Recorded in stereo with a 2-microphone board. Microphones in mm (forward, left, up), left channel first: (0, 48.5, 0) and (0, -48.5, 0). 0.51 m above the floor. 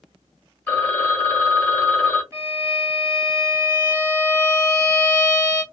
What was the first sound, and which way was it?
A phone ringing, 20° left (ahead or behind).